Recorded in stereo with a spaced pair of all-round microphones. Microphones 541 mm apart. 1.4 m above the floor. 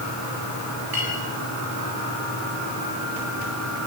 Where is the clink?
45° right (ahead or behind), 7.5 m.